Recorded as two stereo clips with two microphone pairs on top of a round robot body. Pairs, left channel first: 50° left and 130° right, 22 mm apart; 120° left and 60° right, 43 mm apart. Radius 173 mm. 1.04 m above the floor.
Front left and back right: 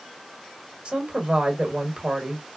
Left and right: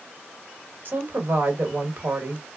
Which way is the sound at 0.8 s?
90° right.